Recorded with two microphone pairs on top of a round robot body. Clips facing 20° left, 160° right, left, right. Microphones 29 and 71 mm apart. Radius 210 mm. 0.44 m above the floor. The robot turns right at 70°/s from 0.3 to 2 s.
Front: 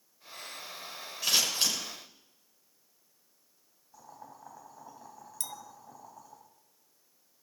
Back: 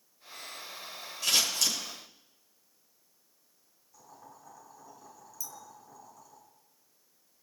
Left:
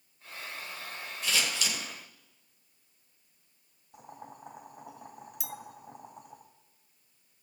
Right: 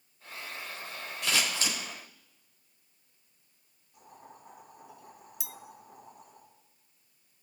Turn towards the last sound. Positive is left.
turn(degrees=-5)